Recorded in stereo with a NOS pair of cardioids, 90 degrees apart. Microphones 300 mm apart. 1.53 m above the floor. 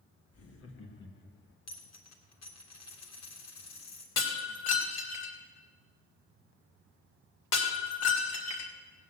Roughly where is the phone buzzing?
I don't hear a phone buzzing.